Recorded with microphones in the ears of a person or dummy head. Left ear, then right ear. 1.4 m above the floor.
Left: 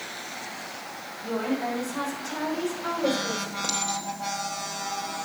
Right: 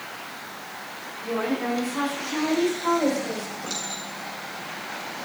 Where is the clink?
70° left (ahead or behind), 3.5 m.